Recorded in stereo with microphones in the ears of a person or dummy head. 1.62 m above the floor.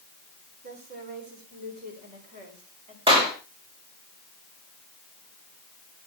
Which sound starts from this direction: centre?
A clap, at 3.1 s.